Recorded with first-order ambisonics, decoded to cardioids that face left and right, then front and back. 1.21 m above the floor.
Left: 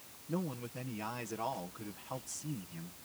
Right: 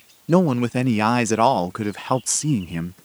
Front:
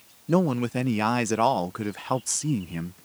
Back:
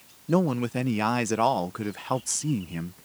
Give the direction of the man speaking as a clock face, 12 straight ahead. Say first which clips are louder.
Right 22 dB, front 1 dB; 3 o'clock.